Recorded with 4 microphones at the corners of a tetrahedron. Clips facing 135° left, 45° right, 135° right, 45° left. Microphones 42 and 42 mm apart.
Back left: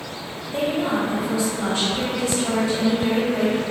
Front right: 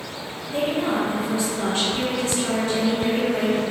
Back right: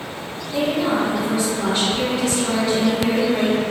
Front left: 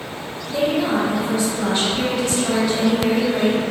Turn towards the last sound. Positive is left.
turn(degrees=-60)